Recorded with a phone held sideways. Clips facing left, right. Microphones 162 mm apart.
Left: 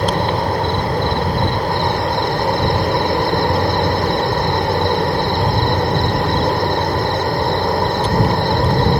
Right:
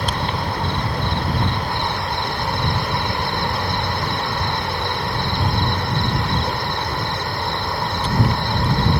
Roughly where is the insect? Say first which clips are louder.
Left 7 dB; left.